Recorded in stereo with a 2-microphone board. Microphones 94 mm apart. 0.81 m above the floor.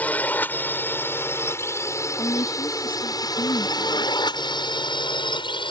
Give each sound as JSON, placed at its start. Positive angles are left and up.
{"t": 0.0, "sound": "a drone", "side_deg": 15}
{"t": 2.2, "sound": "a woman speaking", "side_deg": 70}